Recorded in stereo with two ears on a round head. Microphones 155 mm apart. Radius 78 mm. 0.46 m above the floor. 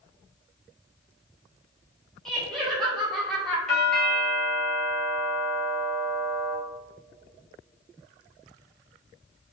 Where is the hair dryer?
I don't hear a hair dryer.